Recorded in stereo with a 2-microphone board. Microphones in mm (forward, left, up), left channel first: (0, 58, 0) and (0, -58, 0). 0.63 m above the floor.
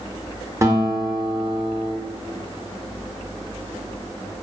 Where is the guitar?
25° right (ahead or behind), 0.5 m.